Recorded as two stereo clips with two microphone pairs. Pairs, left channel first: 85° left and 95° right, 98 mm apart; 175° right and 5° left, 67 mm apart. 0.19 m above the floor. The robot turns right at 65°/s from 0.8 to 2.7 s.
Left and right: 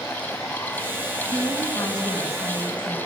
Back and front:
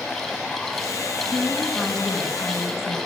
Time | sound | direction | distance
1.3 | a woman speaking | 60° left | 1.6 m